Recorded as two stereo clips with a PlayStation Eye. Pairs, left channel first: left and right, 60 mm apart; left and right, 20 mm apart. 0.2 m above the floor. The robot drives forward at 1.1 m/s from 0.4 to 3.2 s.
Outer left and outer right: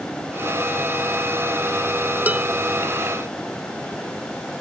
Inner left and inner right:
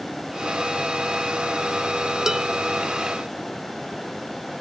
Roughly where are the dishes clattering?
Right.